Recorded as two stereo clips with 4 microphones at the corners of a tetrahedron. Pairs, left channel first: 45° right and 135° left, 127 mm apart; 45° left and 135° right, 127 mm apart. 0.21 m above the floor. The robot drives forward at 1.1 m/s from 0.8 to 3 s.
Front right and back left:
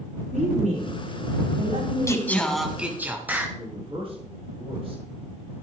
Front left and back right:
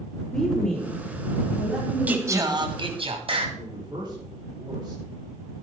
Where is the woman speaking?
130° left, 5.5 m; by 2.6 s 145° left, 6.5 m.